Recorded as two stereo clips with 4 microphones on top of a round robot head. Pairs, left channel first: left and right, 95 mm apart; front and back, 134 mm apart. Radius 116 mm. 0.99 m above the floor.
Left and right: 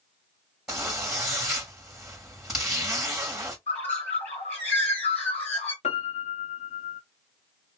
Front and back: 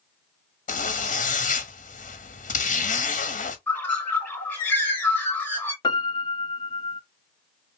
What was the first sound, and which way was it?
A zipper, 5° right.